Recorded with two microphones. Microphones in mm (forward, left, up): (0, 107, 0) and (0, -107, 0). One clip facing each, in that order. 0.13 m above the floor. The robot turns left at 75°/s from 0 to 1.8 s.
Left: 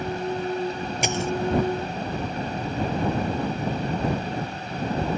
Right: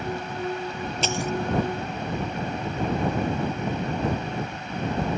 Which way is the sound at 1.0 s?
15° left (ahead or behind).